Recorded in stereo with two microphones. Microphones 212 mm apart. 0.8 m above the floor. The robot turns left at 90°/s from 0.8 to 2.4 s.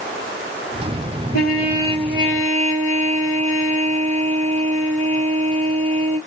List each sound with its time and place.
1.3 s a trumpet: 60° left, 3.5 m; by 6.2 s 35° right, 3.5 m